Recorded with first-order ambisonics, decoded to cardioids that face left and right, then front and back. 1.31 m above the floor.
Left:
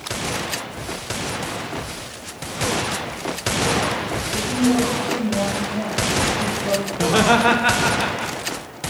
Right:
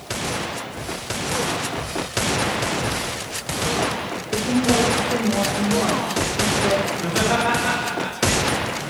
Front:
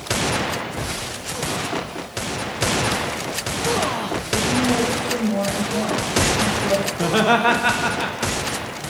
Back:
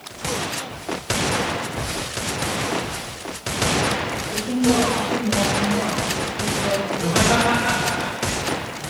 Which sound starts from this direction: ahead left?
Laughter, at 6.9 s.